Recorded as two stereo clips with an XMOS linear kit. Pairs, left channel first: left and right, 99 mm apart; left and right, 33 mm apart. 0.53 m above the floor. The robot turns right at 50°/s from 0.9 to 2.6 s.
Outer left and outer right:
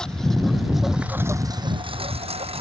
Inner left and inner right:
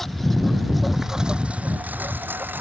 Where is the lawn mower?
5° left (ahead or behind); by 2.6 s 75° right (ahead or behind).